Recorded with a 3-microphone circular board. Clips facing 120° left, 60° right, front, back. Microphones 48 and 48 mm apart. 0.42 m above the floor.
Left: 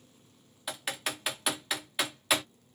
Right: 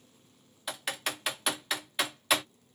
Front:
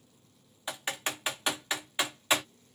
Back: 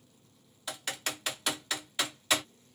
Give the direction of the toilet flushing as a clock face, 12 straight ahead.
I don't hear a toilet flushing.